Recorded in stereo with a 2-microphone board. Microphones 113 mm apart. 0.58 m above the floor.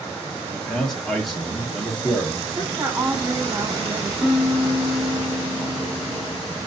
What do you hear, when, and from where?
0.5 s a man speaking: 5° left (ahead or behind), 1.1 m
2.5 s a woman speaking: 25° right (ahead or behind), 1.3 m
4.2 s a piano: 5° right (ahead or behind), 0.6 m